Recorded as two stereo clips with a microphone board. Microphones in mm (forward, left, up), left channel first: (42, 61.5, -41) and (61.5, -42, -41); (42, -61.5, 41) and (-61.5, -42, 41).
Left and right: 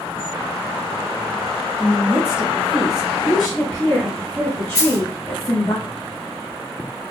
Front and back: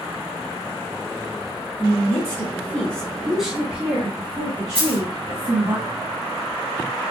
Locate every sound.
1.8 s a woman speaking: 15° right, 1.8 m; by 5.8 s 155° left, 2.5 m
4.8 s a dropped coin: 150° left, 1.2 m